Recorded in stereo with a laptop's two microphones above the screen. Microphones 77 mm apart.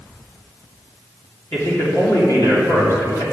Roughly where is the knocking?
I don't hear knocking.